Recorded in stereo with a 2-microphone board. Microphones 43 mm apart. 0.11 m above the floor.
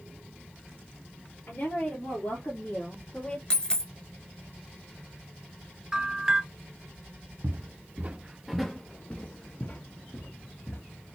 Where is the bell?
10° right (ahead or behind), 1.1 m.